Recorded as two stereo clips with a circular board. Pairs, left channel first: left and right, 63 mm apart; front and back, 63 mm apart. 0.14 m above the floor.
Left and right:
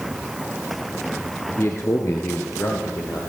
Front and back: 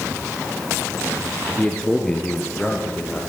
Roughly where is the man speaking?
Left.